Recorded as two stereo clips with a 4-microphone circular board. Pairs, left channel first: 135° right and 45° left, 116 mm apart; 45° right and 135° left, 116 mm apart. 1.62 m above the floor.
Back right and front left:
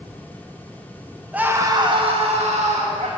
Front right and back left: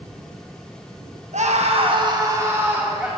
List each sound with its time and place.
1.3 s a scream: 125° left, 1.6 m; by 3.1 s 55° left, 3 m